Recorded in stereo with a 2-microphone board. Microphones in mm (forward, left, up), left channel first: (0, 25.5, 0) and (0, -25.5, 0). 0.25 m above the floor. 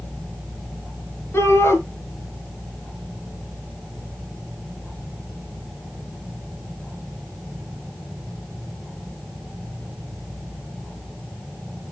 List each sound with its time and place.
1.3 s a shout: 60° left (ahead or behind), 4 m